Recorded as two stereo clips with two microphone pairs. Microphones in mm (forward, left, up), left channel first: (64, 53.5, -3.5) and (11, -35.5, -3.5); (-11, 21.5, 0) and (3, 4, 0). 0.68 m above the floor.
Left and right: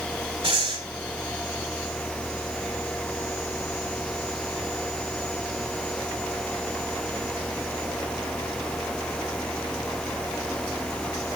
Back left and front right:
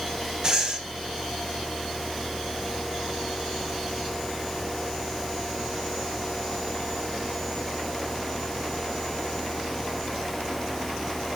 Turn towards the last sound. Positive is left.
turn(degrees=-115)